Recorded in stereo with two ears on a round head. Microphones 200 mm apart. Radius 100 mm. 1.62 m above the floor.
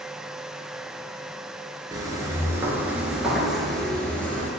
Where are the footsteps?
15° right (ahead or behind), 1.6 m; by 4.5 s 10° left (ahead or behind), 1.9 m.